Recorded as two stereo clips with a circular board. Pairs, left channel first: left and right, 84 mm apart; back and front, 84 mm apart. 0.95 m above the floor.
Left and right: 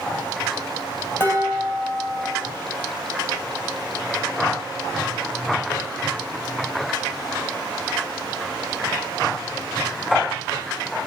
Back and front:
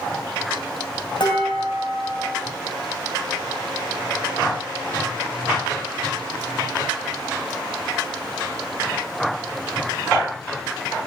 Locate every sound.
1.2 s dishes clattering: 155° left, 4 m